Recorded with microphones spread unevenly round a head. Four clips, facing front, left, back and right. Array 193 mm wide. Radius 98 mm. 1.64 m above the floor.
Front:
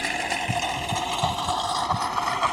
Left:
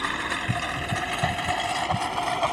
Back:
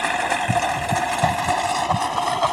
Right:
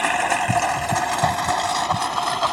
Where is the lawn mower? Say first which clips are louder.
Right 9 dB, back 6 dB; 145° right; by 2.5 s straight behind.